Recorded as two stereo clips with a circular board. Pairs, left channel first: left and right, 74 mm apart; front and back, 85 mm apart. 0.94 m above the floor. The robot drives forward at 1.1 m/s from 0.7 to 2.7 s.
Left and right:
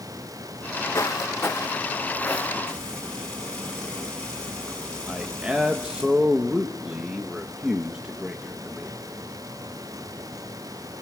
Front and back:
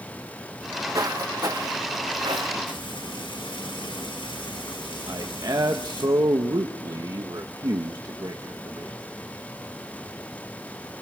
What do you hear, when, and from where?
0.6 s footsteps: 130° left, 3.5 m; by 2.6 s 165° left, 4 m
2.7 s frying: 10° left, 7.5 m
5.1 s a man speaking: 165° right, 1.2 m